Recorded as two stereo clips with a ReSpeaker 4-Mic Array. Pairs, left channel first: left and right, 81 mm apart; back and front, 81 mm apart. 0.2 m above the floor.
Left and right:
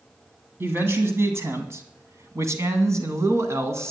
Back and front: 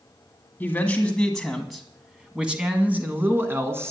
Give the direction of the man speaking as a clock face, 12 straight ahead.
4 o'clock.